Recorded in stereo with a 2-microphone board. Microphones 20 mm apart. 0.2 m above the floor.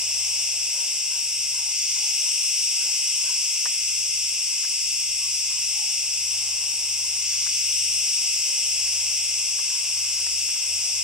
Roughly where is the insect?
Right.